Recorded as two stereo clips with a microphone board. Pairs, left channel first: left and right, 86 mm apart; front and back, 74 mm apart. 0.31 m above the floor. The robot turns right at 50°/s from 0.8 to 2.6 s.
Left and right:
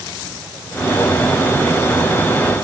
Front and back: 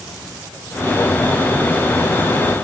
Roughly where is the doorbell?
No doorbell in this recording.